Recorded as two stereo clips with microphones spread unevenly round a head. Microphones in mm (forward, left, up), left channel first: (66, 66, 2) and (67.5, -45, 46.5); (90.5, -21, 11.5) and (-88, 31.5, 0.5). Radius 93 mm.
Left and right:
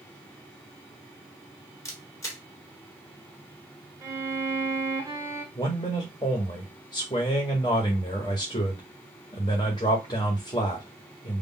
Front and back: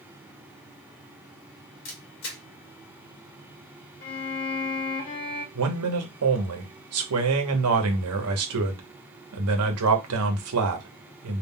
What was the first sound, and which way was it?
A camera shutter, 20° left.